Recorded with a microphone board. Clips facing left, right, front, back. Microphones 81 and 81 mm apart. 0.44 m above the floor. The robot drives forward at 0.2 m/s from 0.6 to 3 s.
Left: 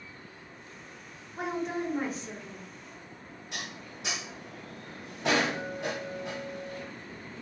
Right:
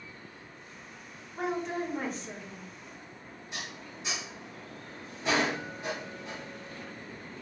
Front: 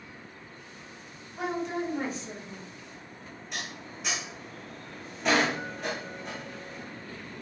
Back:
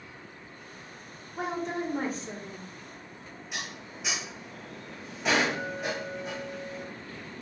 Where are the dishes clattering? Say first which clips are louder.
Left 1 dB, even; 95° left, 1.6 m.